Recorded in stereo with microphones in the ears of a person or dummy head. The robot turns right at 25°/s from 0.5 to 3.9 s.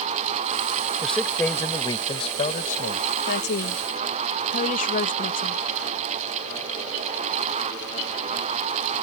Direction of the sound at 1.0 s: 5° right.